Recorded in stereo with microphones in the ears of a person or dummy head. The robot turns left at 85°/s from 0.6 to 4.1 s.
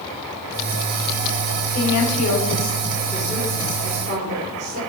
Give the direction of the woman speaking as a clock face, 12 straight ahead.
8 o'clock.